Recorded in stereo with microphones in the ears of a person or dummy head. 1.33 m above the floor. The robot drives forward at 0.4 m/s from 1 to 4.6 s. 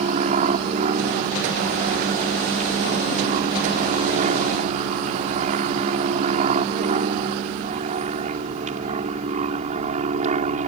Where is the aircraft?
40° right (ahead or behind).